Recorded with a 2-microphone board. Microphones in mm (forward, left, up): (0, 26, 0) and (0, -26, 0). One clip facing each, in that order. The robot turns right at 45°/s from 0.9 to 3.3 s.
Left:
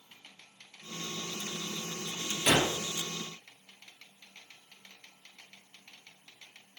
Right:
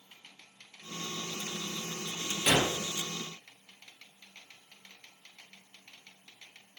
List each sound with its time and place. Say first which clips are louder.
2.5 s a gunshot: left 1 dB; 5° right (ahead or behind), 1.8 m; by 2.7 s 15° right (ahead or behind), 1.8 m